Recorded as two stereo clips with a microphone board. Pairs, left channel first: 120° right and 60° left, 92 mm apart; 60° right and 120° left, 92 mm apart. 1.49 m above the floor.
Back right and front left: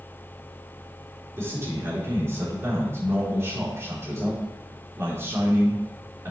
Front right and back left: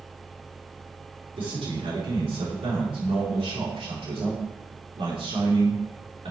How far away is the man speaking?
About 4 m.